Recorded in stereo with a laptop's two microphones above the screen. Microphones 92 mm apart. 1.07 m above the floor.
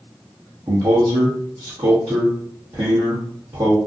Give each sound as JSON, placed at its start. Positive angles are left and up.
{"t": 0.7, "sound": "a man speaking", "side_deg": -45, "distance_m": 1.1}